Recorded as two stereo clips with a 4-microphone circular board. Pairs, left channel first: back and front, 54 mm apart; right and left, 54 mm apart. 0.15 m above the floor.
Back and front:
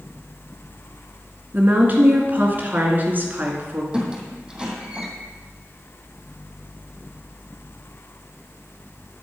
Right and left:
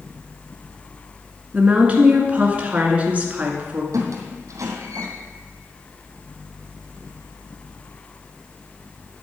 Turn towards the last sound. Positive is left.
turn(degrees=75)